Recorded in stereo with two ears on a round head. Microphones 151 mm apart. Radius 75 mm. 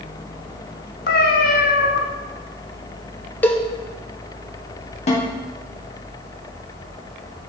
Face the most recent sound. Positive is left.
turn(degrees=40)  # may be behind; listen again after turning